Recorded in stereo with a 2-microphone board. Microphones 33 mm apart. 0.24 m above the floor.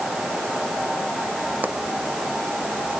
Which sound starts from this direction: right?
A pop, at 1.6 s.